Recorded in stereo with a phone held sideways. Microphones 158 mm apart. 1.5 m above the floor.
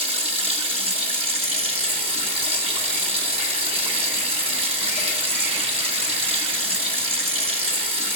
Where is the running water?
40° right (ahead or behind), 1.7 m.